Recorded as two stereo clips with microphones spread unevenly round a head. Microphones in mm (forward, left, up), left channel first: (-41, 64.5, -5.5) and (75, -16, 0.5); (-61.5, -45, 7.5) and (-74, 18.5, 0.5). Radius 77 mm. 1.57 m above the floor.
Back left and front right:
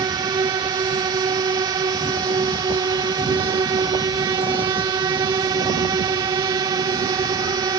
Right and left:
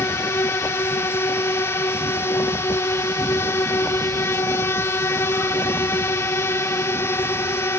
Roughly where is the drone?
Right.